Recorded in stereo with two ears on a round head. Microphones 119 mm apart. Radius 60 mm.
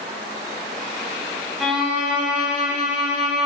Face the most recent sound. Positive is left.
turn(degrees=-5)  # may be behind; listen again after turning